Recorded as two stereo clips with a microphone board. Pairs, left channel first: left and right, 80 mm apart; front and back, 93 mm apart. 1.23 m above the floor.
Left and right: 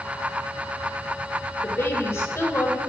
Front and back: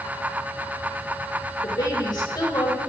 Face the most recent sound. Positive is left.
turn(degrees=35)